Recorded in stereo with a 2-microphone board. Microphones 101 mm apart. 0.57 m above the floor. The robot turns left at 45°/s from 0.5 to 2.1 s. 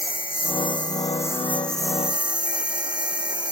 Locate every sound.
0.0 s a lawn mower: 60° left; by 3.5 s 10° right